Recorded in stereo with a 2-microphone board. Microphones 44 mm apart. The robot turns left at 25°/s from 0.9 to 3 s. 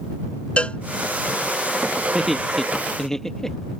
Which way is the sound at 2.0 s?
15° right (ahead or behind).